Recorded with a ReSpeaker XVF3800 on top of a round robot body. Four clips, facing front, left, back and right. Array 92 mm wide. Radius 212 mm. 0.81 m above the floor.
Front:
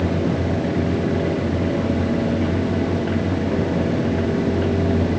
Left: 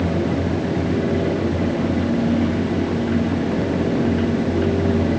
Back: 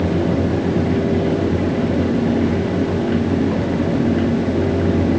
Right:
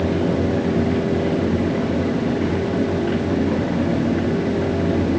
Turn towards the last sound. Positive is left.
No sound to turn to.